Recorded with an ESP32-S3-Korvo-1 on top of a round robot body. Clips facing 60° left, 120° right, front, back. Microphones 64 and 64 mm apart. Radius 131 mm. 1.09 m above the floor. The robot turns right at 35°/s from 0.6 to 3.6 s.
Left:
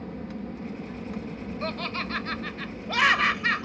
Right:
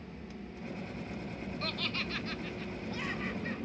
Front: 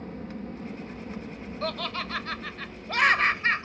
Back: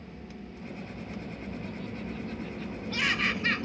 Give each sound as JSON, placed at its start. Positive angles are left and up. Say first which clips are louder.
{"t": 0.0, "sound": "an aircraft", "louder": "left 10 dB, front 7 dB", "azimuth_deg": 40}
{"t": 1.6, "sound": "laughter", "louder": "left 7 dB, front 6 dB", "azimuth_deg": -5}